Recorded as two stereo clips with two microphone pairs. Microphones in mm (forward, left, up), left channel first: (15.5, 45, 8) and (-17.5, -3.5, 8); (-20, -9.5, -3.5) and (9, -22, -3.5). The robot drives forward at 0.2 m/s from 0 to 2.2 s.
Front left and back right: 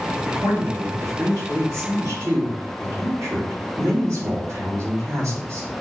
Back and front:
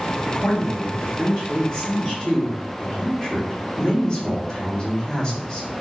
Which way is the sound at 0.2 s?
130° right.